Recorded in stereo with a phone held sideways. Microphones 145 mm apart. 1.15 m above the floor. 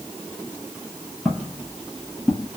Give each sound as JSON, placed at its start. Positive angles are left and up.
{"t": 1.2, "sound": "footsteps", "side_deg": 0, "distance_m": 1.8}